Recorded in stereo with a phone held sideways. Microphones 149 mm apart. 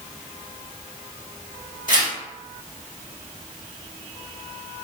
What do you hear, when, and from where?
1.9 s tearing paper: 65° left (ahead or behind), 1.1 m